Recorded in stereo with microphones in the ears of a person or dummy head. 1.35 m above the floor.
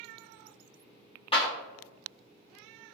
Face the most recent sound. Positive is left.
turn(degrees=20)  # may be behind; listen again after turning